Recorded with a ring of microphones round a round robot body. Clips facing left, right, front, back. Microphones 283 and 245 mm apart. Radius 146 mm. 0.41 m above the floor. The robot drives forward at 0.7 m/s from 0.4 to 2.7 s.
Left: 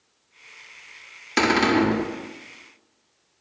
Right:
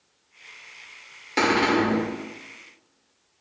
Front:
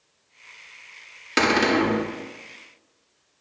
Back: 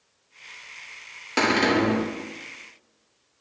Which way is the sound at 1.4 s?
50° left.